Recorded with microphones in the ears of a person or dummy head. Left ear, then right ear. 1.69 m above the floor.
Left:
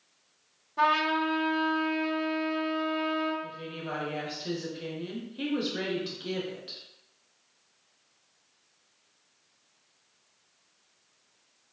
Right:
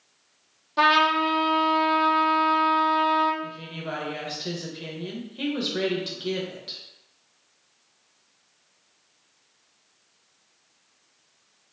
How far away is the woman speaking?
About 0.7 m.